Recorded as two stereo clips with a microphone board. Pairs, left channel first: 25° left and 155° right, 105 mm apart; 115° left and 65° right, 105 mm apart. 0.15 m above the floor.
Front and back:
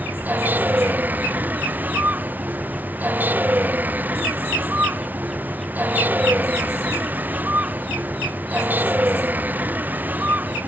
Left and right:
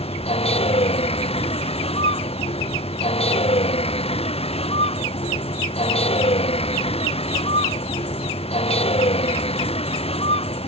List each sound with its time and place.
0.0 s a vehicle: 130° left